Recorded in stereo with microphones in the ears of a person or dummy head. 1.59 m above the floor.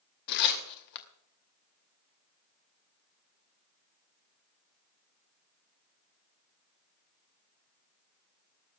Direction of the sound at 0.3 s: 55° left (ahead or behind).